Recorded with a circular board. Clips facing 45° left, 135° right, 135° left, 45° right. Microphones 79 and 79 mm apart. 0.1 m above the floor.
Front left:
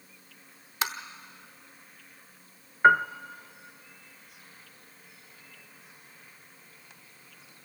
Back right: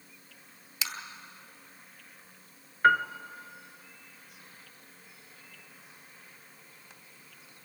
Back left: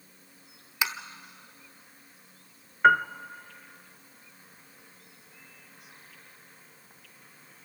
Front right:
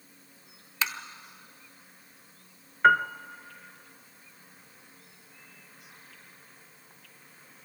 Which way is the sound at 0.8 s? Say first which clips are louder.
Front left 8 dB, back left 1 dB; 65° left.